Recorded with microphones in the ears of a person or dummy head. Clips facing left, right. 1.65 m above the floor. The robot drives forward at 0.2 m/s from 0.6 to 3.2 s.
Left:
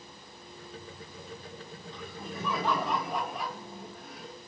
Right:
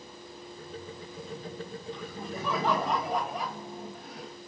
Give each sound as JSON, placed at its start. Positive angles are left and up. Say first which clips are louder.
{"t": 1.9, "sound": "laughter", "louder": "even", "side_deg": -45, "distance_m": 3.5}